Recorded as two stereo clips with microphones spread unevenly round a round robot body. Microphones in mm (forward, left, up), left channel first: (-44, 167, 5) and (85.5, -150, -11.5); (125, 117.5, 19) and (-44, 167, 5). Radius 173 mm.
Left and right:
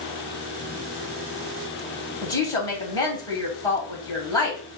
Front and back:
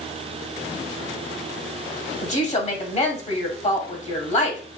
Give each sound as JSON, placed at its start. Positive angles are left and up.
{"t": 2.2, "sound": "a woman speaking", "azimuth_deg": 35, "distance_m": 1.9}